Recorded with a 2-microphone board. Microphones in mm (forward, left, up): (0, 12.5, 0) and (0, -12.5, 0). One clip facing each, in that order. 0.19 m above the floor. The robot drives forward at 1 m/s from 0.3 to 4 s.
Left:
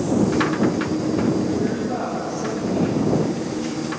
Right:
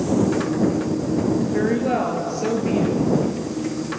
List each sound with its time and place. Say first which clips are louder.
1.5 s a woman speaking: right 3 dB; 70° right (ahead or behind), 4 m; by 3.0 s 60° right (ahead or behind), 4.5 m